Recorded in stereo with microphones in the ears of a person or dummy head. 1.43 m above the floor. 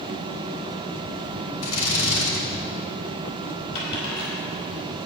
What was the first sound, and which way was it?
A drill, 80° left.